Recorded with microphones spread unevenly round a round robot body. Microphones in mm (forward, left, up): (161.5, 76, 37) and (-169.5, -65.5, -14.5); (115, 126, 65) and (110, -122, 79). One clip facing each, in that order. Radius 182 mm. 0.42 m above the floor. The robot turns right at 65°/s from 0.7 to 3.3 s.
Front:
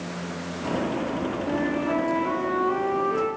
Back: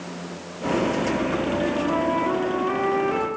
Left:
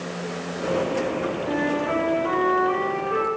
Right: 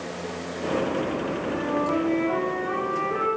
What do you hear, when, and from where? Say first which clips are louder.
1.5 s a flute: back 1 dB, left 1 dB; 65° left, 3 m; by 3.3 s 175° right, 3 m